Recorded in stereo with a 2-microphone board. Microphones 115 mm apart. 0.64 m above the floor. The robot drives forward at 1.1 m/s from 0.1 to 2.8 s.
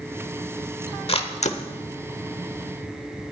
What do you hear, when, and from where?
1.1 s a camera shutter: 50° left (ahead or behind), 1.2 m; by 1.6 s 75° left (ahead or behind), 1.0 m